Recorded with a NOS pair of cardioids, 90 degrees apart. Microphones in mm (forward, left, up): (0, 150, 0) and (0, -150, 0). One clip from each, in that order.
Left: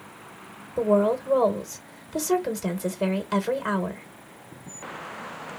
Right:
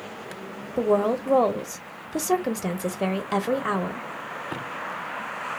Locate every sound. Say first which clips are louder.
0.8 s a woman speaking: left 1 dB; 10° right, 0.9 m